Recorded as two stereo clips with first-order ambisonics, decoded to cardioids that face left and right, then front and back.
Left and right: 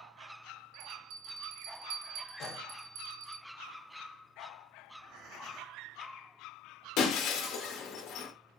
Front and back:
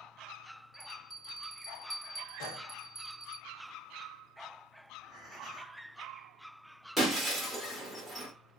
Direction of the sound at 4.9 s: 90° right.